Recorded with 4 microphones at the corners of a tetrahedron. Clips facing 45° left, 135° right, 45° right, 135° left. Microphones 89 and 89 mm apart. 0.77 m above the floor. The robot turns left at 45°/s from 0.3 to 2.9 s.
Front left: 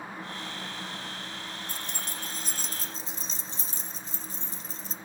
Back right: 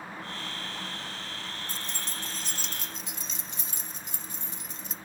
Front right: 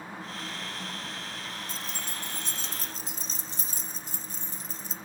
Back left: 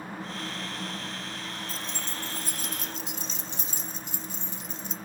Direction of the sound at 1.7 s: 50° left.